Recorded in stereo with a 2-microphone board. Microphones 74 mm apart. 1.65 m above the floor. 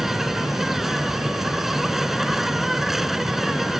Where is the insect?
5° right (ahead or behind).